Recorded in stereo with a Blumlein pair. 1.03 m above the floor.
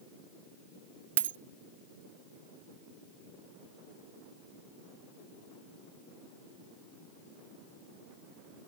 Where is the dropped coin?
65° right.